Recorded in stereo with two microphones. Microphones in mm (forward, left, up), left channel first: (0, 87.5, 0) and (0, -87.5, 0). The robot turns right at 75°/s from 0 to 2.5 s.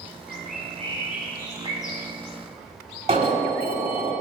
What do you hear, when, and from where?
0.3 s a bird: 70° right, 2 m; by 2.0 s 60° left, 2 m
3.1 s an alarm: 35° right (ahead or behind), 1.3 m